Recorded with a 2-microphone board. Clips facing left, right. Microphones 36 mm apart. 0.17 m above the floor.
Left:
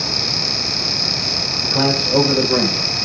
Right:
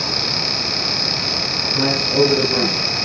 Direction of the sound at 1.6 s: 65° left (ahead or behind).